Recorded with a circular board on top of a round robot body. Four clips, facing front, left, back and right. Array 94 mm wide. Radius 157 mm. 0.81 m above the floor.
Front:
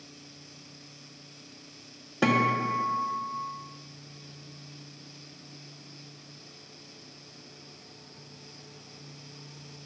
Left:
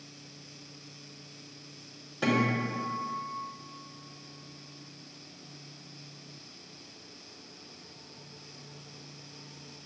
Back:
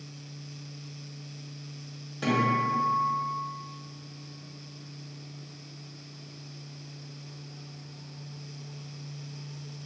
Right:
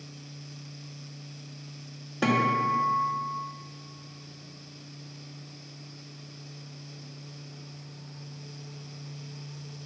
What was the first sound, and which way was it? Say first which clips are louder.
A guitar: right 4 dB, front 1 dB; 25° right.